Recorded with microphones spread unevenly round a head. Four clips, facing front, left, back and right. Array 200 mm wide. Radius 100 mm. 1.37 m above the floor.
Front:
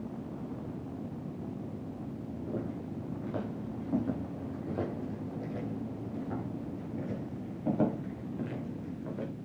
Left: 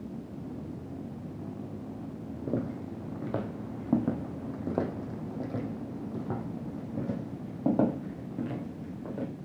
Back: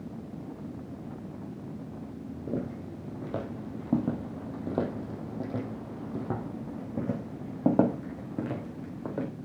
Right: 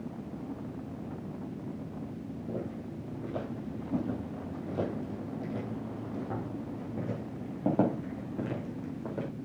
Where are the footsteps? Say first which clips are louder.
Left 6 dB, back 4 dB; 120° left, 3 m; by 9.3 s 170° right, 4 m.